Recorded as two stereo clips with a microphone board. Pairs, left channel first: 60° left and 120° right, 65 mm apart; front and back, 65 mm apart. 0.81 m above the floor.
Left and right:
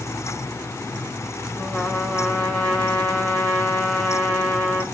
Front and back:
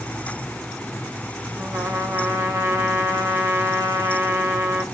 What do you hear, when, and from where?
1.6 s a trumpet: 130° left, 2 m